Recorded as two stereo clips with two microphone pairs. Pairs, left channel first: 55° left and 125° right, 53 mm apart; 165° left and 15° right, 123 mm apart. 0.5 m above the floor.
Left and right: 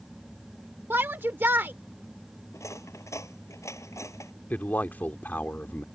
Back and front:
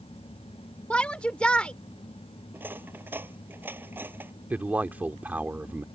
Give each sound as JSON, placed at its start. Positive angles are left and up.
{"t": 0.9, "sound": "a shout", "azimuth_deg": -120}
{"t": 2.5, "sound": "cutlery clinking", "azimuth_deg": 60}
{"t": 4.5, "sound": "a man speaking", "azimuth_deg": 55}